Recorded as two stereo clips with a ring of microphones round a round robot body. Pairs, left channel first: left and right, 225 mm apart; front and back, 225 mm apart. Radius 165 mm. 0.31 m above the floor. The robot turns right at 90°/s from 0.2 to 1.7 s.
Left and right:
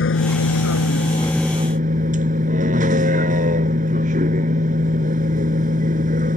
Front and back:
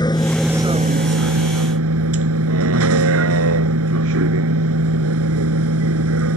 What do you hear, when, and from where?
0.0 s a vehicle: 70° left; by 6.4 s 155° right